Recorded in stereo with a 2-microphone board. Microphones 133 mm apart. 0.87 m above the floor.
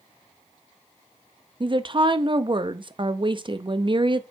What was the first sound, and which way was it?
A woman speaking, 40° right (ahead or behind).